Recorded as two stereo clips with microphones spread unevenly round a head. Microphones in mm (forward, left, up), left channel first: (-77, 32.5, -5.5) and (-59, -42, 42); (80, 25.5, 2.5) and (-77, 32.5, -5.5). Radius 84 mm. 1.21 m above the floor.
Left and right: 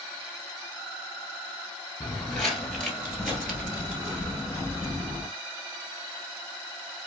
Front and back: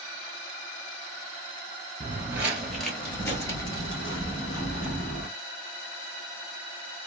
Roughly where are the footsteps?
Behind right.